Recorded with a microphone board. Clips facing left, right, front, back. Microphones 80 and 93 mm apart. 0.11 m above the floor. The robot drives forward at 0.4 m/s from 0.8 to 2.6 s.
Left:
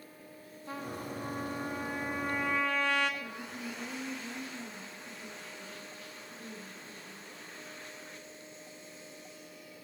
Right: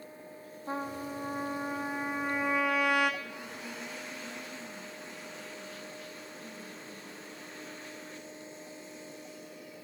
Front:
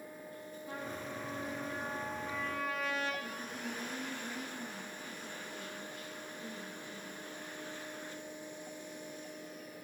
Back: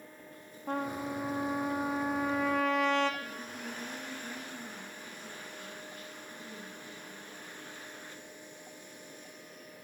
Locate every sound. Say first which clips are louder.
0.7 s a trumpet: right 4 dB, back 9 dB; 150° right, 0.6 m; by 3.1 s 165° right, 1.3 m
3.2 s a woman speaking: left 1 dB, even; 115° left, 5.5 m